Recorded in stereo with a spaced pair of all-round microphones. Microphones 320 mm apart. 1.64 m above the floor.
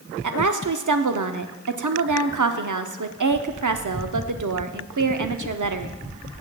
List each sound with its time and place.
0.2 s a woman speaking: 70° right (ahead or behind), 0.6 m